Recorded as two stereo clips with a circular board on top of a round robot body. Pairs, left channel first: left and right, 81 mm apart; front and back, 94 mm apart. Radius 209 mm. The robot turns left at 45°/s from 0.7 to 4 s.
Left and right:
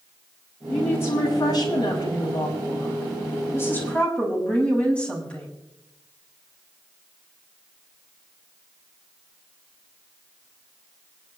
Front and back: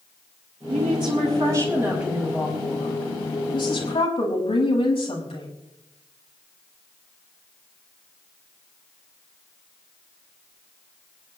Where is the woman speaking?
165° left, 6 m; by 5.5 s 15° left, 6 m.